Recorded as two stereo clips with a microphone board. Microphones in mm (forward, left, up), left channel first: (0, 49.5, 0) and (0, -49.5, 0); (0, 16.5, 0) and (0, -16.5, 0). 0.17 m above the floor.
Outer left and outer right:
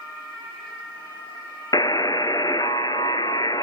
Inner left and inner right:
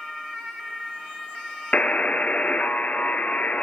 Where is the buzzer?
40° left (ahead or behind), 0.5 m.